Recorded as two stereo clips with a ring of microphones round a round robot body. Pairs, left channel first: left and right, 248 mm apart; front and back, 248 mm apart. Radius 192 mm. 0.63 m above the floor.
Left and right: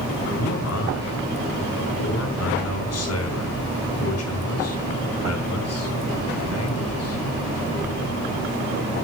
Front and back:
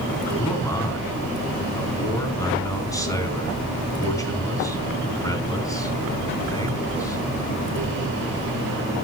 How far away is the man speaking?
About 5 m.